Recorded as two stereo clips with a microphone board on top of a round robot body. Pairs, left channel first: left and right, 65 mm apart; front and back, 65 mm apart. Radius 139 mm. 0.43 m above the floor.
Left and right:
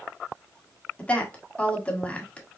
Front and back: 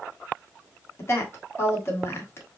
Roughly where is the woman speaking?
Ahead left.